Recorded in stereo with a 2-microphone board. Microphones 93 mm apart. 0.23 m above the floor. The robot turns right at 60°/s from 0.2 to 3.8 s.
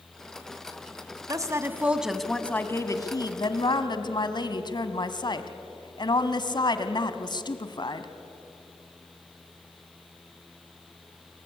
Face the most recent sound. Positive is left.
turn(degrees=100)